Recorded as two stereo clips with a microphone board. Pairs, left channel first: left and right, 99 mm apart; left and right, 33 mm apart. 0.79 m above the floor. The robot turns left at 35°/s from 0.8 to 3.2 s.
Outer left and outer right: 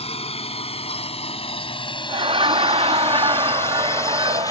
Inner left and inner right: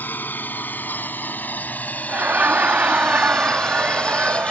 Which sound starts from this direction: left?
A drone, at 0.0 s.